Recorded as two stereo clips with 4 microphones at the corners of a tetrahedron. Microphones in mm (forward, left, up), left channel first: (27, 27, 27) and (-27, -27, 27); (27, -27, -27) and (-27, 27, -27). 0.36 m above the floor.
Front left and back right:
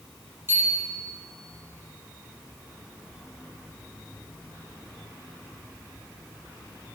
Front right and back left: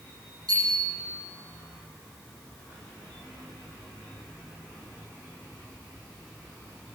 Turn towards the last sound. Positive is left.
turn(degrees=165)